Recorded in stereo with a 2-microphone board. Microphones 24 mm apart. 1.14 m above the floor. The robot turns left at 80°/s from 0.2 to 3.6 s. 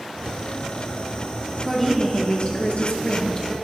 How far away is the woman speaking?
About 1.5 m.